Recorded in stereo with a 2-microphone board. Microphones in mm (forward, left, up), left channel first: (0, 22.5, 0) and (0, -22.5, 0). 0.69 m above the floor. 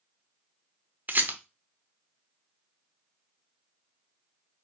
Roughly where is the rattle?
Right.